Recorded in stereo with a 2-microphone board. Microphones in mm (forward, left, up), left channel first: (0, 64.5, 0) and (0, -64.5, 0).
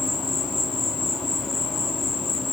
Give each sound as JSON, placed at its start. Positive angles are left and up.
{"t": 0.0, "sound": "an insect", "side_deg": 0, "distance_m": 1.6}